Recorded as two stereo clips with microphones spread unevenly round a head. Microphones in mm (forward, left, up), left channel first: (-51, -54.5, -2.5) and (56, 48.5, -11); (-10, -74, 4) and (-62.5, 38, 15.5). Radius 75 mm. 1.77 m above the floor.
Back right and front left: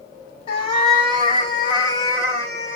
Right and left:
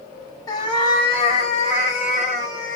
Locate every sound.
0.5 s a cat meowing: 110° right, 2.0 m; by 2.8 s 75° right, 3 m